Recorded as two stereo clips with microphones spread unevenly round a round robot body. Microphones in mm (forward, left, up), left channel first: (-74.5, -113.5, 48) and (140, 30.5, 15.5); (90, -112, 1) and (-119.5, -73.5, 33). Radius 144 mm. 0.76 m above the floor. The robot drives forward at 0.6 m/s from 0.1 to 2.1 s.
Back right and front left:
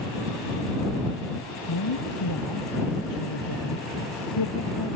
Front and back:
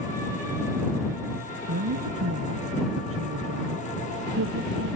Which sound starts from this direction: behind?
A woman speaking, at 1.7 s.